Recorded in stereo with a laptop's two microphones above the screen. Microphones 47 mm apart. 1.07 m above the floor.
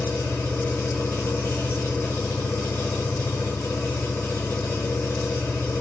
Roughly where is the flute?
I don't hear a flute.